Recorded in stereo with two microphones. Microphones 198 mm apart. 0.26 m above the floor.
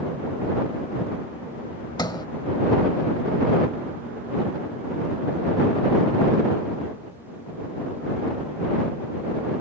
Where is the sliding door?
20° left (ahead or behind).